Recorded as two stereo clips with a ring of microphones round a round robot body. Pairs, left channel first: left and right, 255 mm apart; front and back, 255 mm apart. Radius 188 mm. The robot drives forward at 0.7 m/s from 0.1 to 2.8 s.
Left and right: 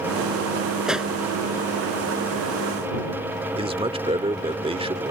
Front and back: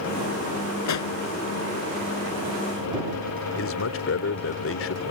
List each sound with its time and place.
0.9 s a pop: 5° right
3.5 s a man speaking: 25° right